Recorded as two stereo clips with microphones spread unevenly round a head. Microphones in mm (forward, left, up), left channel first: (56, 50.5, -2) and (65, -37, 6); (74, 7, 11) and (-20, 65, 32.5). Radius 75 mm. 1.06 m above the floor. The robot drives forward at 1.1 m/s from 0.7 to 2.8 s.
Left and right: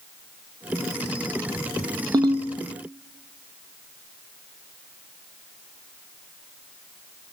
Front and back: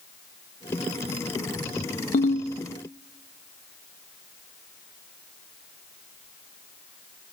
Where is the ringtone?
35° right, 0.9 m; by 2.5 s 60° right, 0.6 m.